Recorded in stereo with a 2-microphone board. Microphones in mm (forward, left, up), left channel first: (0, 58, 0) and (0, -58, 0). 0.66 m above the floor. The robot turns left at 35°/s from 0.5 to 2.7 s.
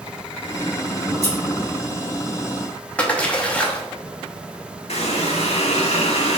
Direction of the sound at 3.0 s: 10° left (ahead or behind).